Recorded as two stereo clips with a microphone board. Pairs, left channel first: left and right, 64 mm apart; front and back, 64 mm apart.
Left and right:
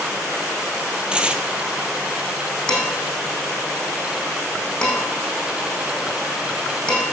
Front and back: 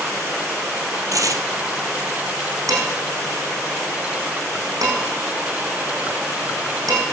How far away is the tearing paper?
About 0.9 m.